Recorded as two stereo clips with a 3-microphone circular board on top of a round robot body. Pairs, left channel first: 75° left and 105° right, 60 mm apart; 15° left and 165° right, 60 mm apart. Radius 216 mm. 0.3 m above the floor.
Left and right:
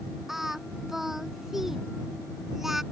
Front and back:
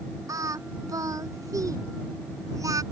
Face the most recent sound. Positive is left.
turn(degrees=170)